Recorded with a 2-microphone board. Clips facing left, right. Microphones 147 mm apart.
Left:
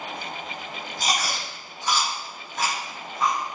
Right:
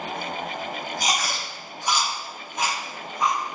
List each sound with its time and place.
1.0 s chewing: 15° right (ahead or behind), 4.5 m